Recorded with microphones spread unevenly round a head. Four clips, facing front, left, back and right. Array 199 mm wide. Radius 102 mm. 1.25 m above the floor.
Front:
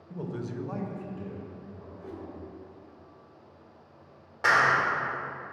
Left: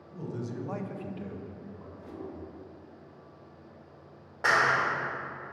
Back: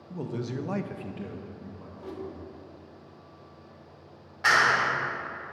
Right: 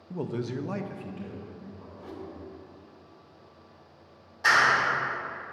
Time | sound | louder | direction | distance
0.1 | a man speaking | right 5 dB, back 2 dB | 100° right | 0.7 m
2.0 | a whoosh | right 1 dB, back 4 dB | 115° right | 0.9 m
4.4 | a clap | right 2 dB, even | 65° left | 1.8 m